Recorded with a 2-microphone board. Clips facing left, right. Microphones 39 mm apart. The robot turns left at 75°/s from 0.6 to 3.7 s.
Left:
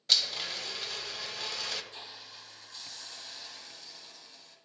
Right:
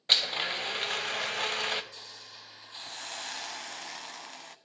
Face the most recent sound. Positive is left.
turn(degrees=-105)